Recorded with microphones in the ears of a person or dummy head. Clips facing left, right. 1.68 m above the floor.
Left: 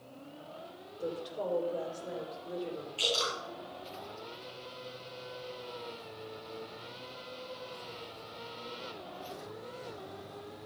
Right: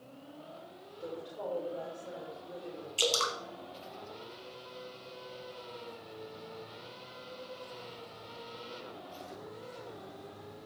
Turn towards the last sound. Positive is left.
turn(degrees=-55)  # may be behind; listen again after turning